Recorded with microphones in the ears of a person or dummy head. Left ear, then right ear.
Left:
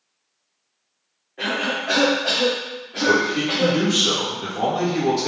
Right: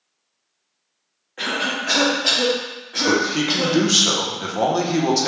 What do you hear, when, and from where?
1.4 s a cough: 50° right (ahead or behind), 1.6 m
3.0 s a man speaking: 80° right, 0.9 m